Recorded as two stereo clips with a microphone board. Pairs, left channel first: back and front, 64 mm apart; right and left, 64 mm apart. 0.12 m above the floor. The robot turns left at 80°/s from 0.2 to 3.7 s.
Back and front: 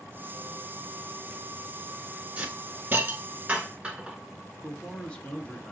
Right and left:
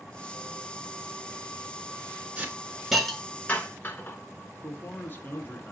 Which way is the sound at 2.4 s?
50° left.